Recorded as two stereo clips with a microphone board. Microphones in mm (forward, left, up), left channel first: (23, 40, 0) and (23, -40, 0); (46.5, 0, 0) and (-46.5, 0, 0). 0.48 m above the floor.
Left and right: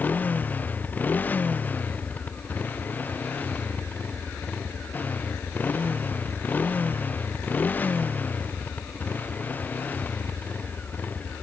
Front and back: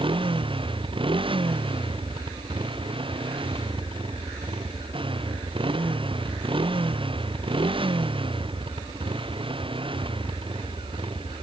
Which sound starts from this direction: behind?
A motorcycle, at 0.0 s.